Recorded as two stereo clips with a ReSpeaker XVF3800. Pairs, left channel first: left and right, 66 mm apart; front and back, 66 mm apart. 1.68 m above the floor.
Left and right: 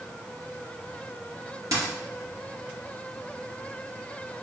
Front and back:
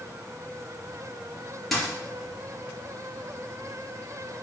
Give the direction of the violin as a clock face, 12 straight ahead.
No violin in this recording.